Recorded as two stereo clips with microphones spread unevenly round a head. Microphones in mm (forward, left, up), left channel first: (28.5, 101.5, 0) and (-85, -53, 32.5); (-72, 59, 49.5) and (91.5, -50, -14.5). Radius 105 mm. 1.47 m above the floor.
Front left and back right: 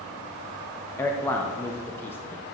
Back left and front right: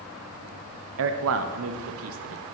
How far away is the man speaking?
About 0.6 m.